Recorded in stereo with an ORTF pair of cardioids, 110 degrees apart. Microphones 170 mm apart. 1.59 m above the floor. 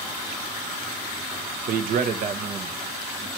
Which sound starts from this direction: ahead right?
A man speaking, at 1.7 s.